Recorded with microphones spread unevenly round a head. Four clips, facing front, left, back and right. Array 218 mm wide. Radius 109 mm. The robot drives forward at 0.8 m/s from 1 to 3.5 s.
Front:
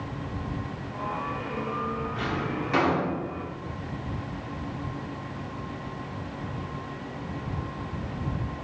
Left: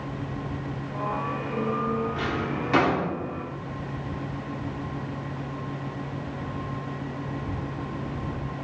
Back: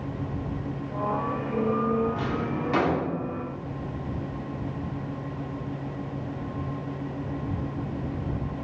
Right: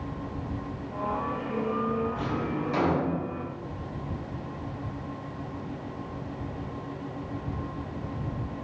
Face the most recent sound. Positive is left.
turn(degrees=105)